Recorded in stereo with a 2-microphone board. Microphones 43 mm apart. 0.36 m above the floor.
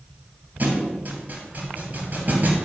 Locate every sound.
0.6 s a thud: 45° right (ahead or behind), 3 m